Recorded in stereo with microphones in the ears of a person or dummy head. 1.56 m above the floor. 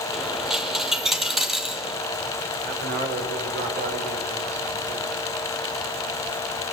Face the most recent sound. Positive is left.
turn(degrees=-55)  # may be behind; listen again after turning